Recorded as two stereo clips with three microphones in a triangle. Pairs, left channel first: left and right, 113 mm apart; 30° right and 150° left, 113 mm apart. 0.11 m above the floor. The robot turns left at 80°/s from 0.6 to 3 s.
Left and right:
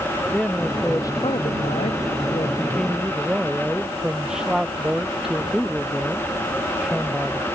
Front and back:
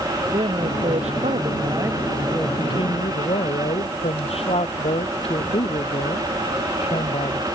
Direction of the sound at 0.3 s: 175° right.